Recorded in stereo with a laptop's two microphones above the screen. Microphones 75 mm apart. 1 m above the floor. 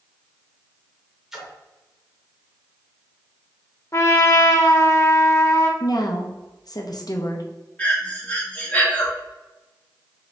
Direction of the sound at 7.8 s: 20° left (ahead or behind).